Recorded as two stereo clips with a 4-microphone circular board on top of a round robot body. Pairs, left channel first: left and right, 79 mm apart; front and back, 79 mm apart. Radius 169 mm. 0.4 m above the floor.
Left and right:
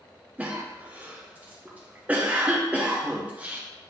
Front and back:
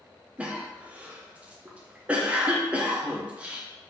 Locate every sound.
0.4 s a cough: 130° right, 0.8 m